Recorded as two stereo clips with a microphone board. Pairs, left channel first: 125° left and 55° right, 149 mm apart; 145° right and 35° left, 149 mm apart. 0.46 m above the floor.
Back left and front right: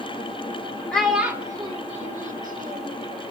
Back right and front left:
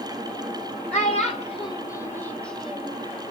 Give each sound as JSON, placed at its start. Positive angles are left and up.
{"t": 0.9, "sound": "a child speaking", "azimuth_deg": -155, "distance_m": 1.0}